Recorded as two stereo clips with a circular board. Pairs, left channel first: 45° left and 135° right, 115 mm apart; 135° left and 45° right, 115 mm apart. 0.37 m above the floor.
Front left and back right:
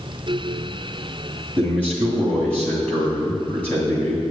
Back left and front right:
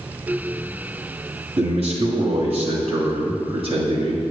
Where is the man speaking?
30° right, 2.5 m.